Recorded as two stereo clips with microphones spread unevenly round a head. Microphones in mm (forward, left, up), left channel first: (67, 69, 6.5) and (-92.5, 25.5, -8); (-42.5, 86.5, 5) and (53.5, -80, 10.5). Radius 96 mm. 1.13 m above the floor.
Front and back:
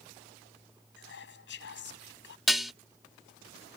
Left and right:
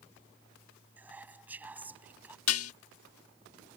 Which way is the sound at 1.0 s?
20° left.